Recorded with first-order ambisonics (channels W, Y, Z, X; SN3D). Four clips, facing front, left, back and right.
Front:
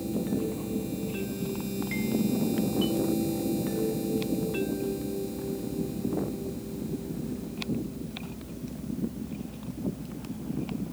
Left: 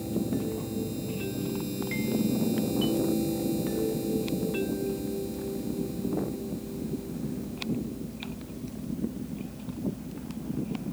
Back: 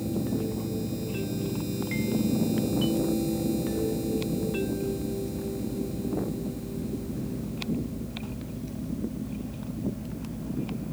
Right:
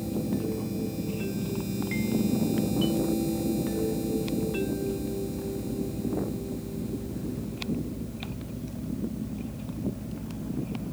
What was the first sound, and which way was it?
Only background noise.